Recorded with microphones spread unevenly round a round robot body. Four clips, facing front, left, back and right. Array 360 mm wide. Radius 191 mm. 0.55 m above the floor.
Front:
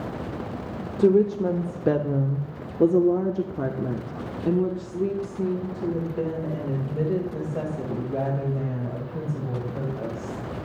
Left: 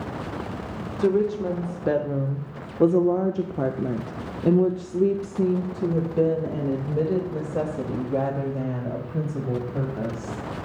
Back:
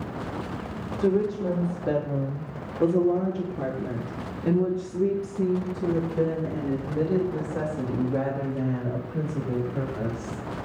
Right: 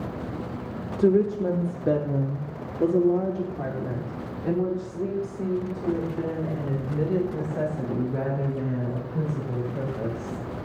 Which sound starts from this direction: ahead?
A woman speaking, at 1.0 s.